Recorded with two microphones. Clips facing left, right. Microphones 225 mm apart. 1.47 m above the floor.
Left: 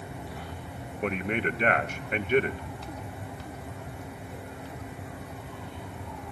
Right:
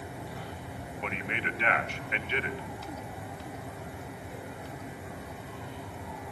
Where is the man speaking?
45° left (ahead or behind), 2.0 m.